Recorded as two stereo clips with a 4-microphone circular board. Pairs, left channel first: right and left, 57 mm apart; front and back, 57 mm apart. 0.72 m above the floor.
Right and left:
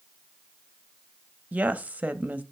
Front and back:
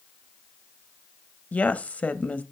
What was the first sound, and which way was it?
A woman speaking, 45° left.